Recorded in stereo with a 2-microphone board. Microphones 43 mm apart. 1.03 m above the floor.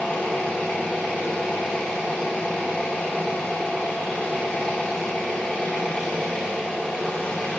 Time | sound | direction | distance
0.0 | an engine running | 30° left (ahead or behind) | 2.0 m